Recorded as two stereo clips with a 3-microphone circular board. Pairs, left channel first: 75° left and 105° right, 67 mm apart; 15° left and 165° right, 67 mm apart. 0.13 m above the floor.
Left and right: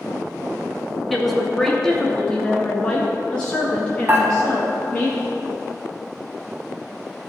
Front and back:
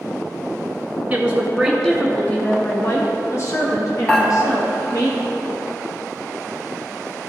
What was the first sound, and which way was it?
A woman speaking, 160° left.